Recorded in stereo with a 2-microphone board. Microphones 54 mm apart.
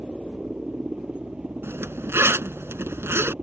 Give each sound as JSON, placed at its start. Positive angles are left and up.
{"t": 0.0, "sound": "a helicopter", "side_deg": -20}
{"t": 1.6, "sound": "a zipper", "side_deg": -50}